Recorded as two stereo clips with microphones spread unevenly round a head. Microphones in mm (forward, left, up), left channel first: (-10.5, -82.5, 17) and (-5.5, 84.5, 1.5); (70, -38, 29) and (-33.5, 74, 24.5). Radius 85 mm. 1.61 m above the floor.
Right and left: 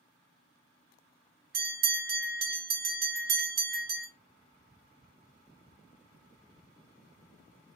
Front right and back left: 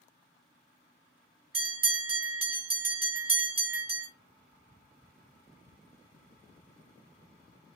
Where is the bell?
90° left, 1.9 m.